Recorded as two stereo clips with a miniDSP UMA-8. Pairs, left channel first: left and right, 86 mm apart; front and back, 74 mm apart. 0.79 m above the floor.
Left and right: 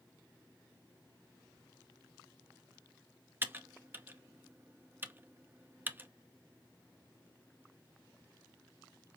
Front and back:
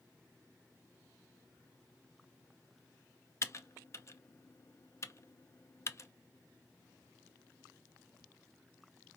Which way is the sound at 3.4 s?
35° right.